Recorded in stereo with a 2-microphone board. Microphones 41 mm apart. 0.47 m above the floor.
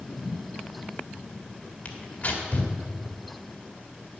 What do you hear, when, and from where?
1.9 s tearing paper: 45° left (ahead or behind), 1.5 m